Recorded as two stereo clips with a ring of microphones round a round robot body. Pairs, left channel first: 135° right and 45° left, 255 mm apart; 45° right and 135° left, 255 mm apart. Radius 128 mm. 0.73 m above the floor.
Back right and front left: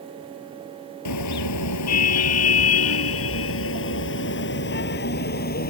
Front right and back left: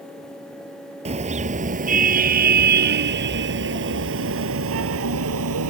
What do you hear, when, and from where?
1.1 s a car horn: 160° right; by 5.7 s 170° left